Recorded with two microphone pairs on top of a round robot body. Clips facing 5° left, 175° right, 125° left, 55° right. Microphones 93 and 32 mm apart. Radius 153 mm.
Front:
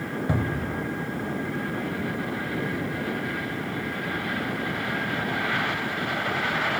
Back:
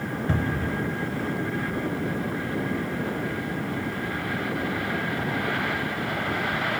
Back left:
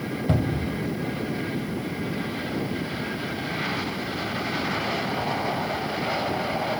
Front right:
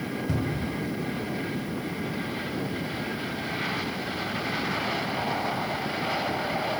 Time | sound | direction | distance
0.3 | a cupboard door | 85° left | 4.5 m